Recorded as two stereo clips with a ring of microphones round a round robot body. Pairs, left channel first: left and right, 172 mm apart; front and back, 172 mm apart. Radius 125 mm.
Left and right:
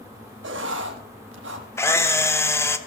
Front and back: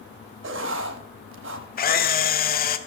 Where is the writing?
135° right, 0.7 m.